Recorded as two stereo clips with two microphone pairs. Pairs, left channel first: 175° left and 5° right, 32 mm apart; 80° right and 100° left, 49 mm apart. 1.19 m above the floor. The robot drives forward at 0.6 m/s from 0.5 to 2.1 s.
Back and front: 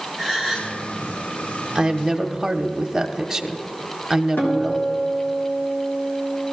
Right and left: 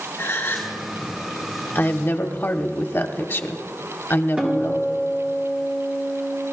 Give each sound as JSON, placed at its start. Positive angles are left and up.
{"t": 0.2, "sound": "a gasp", "azimuth_deg": -110, "distance_m": 3.0}
{"t": 1.8, "sound": "a woman speaking", "azimuth_deg": -60, "distance_m": 0.9}
{"t": 4.4, "sound": "a guitar", "azimuth_deg": 170, "distance_m": 1.8}